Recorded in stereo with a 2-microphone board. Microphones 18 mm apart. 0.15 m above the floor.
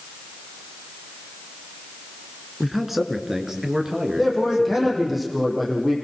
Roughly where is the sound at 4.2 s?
Centre.